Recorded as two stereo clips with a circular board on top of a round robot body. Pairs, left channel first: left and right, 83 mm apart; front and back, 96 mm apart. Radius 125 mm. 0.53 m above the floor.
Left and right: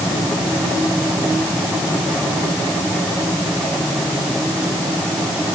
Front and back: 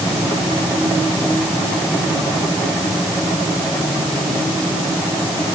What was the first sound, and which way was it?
Only background noise.